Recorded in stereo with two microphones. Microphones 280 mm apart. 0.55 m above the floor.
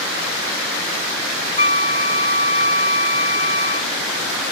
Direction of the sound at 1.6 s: 25° left (ahead or behind).